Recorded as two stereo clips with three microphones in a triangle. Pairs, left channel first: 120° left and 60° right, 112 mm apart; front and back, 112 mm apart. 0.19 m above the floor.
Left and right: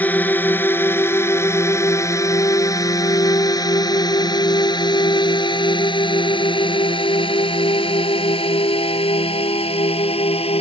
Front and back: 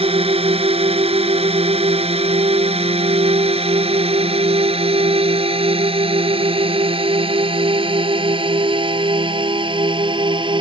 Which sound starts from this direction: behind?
A drone, at 0.0 s.